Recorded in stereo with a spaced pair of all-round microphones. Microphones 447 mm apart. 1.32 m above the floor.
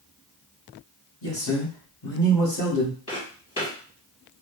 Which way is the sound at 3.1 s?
30° left (ahead or behind).